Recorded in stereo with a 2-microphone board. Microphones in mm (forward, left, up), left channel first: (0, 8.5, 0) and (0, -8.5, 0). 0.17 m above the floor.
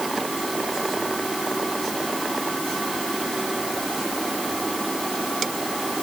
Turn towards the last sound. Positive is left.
No sound to turn to.